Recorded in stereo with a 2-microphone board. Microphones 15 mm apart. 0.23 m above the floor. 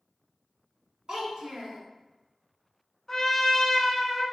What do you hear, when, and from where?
1.1 s a child speaking: 60° right (ahead or behind), 1.2 m
3.1 s a trumpet: 20° left (ahead or behind), 0.7 m